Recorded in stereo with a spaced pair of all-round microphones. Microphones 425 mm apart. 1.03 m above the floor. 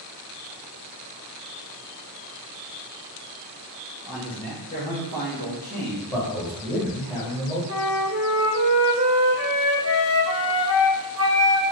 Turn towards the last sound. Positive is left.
turn(degrees=-35)  # may be behind; listen again after turning